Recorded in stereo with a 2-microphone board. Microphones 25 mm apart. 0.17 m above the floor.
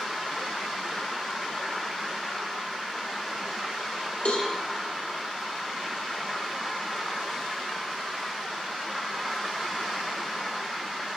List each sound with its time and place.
4.2 s a cowbell: 65° left (ahead or behind), 2 m